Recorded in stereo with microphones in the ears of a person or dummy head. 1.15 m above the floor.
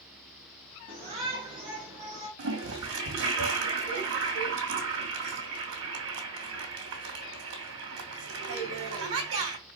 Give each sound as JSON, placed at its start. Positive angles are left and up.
{"t": 0.9, "sound": "a shout", "side_deg": -35, "distance_m": 2.5}
{"t": 2.4, "sound": "a toilet flushing", "side_deg": -70, "distance_m": 2.5}